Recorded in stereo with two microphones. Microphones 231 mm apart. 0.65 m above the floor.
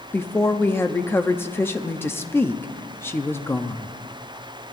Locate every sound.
0.1 s a woman speaking: 10° left (ahead or behind), 0.5 m